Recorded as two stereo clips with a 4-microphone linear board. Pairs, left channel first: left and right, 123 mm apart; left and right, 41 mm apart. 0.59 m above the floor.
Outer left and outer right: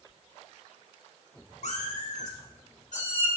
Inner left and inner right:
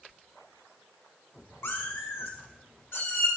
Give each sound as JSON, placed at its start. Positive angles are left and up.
{"t": 1.6, "sound": "a cat meowing", "side_deg": 80, "distance_m": 2.0}